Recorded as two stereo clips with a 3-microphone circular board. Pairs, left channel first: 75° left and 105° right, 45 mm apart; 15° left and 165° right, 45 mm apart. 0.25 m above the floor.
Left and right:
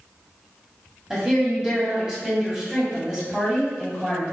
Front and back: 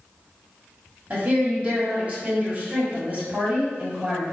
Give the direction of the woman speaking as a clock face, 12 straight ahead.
6 o'clock.